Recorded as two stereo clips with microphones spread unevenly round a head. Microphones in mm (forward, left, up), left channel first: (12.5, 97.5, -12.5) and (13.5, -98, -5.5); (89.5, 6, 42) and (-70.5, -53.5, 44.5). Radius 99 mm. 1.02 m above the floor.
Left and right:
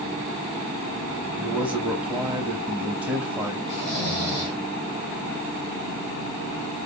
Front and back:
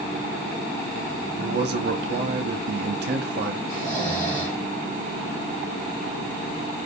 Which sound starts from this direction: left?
Snoring, at 3.7 s.